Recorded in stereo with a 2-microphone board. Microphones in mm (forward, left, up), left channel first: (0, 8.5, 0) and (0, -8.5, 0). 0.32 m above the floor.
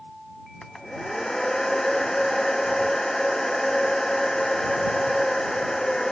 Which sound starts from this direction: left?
A hair dryer, at 0.6 s.